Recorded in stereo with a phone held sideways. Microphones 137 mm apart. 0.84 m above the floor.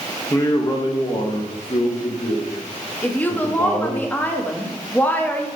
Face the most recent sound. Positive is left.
turn(degrees=10)  # may be behind; listen again after turning